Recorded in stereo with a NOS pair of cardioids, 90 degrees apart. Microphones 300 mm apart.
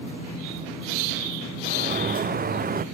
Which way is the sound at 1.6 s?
30° right.